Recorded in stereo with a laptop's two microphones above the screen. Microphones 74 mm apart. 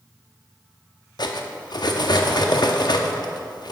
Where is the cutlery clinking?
70° left (ahead or behind), 0.6 m.